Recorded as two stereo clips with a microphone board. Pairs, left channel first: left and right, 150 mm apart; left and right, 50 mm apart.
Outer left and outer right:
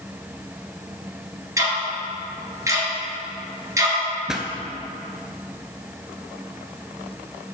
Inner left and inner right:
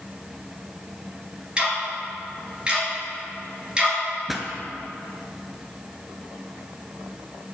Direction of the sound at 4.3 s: 5° right (ahead or behind).